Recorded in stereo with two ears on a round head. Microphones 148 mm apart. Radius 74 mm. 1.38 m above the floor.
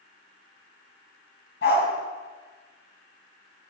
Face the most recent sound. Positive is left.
turn(degrees=75)  # may be behind; listen again after turning